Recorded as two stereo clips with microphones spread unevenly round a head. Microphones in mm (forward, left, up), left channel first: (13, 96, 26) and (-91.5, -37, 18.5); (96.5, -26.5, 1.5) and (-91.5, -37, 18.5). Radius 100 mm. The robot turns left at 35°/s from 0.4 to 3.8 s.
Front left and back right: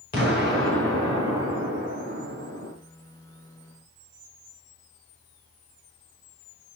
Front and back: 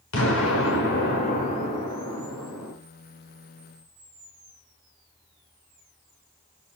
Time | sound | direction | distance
0.1 | an explosion | 15° right | 4.5 m